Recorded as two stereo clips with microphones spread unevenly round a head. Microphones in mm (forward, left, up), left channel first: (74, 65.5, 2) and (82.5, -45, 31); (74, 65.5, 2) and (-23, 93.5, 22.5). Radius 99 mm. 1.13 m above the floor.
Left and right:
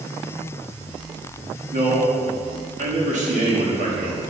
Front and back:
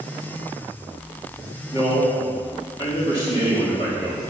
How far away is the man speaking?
About 2.5 m.